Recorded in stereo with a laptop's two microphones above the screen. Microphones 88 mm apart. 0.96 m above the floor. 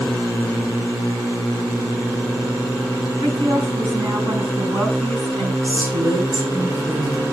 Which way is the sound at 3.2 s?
85° right.